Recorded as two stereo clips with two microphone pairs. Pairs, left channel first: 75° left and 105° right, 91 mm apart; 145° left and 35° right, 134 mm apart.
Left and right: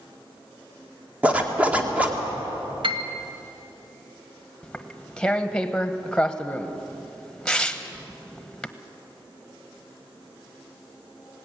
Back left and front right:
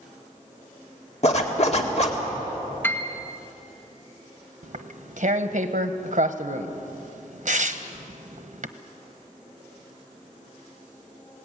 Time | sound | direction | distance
1.2 | a zipper | 175° left | 1.9 m
2.8 | a piano | 140° right | 1.5 m
4.6 | tearing paper | 10° right | 0.9 m